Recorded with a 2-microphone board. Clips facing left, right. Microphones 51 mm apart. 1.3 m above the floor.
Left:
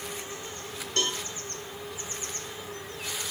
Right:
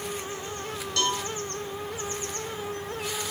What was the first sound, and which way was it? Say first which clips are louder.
A cowbell: right 3 dB; 35° left (ahead or behind).